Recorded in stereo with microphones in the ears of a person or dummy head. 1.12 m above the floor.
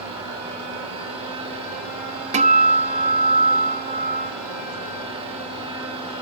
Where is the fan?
30° right (ahead or behind), 5 m.